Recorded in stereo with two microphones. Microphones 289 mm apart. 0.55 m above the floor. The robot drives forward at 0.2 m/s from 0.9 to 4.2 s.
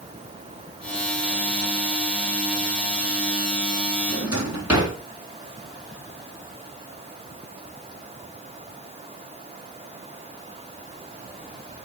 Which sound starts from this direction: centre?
A drawer, at 4.1 s.